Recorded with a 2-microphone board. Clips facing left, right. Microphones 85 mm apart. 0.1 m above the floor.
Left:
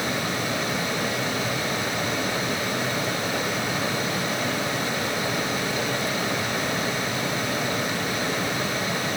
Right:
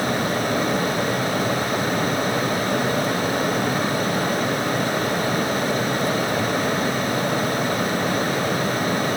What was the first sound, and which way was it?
Only background noise.